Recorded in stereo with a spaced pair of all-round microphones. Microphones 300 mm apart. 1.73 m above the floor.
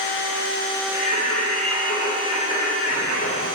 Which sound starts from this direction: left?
Singing, at 0.9 s.